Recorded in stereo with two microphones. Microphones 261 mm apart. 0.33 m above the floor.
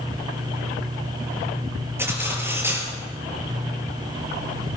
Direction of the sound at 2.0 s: 10° right (ahead or behind).